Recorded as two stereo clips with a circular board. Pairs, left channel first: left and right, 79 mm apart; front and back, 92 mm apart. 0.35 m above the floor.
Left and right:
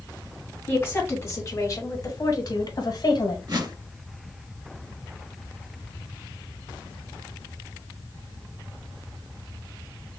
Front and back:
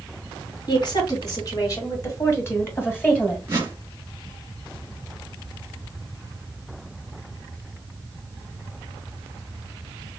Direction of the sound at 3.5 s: 120° right.